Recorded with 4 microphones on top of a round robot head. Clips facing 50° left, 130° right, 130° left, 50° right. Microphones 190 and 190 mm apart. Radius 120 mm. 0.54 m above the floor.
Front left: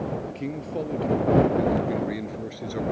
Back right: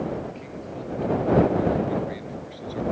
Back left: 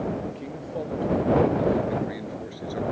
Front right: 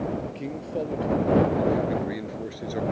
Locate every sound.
0.3 s a man speaking: 15° left